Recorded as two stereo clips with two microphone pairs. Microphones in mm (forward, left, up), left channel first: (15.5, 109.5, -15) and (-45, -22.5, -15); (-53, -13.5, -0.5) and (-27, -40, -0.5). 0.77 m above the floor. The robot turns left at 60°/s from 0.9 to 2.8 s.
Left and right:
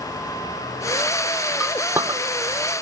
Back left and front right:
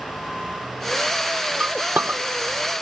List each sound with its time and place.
1.6 s a clink: 20° right, 1.0 m; by 2.2 s 55° right, 1.0 m